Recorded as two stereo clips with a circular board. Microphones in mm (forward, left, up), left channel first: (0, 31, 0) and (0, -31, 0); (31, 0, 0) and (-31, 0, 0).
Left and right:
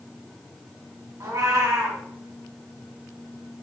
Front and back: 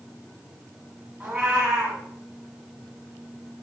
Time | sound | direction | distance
1.2 | a cat meowing | 110° right | 1.4 m